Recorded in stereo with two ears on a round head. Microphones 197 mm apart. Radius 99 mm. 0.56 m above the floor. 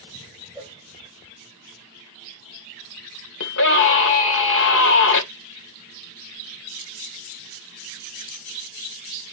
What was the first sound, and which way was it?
A cowbell, 15° left (ahead or behind).